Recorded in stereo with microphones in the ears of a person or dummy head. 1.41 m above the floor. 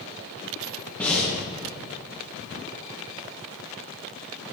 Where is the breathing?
5° left (ahead or behind), 1.5 m.